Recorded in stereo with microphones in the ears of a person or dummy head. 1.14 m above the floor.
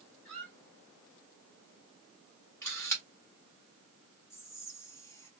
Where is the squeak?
10° left (ahead or behind), 2.5 m.